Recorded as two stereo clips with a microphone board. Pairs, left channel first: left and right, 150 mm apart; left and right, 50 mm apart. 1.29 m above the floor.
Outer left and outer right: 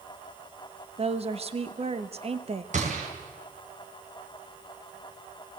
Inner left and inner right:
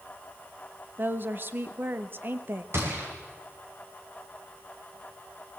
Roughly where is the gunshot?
Right.